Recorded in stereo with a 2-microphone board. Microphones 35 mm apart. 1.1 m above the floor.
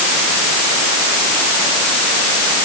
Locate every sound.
Only background noise.